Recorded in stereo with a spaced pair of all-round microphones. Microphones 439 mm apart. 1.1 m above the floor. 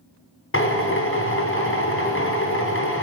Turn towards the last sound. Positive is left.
turn(degrees=30)  # may be behind; listen again after turning